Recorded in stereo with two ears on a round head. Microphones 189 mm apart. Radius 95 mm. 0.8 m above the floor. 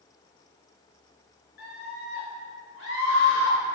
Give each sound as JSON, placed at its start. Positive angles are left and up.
{"t": 1.6, "sound": "a scream", "side_deg": 60, "distance_m": 4.0}